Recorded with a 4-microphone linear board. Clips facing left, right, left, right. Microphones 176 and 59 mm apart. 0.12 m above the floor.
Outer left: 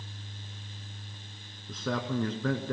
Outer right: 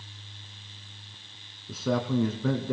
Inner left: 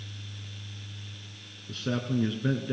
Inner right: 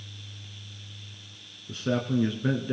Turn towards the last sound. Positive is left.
turn(degrees=-10)  # may be behind; listen again after turning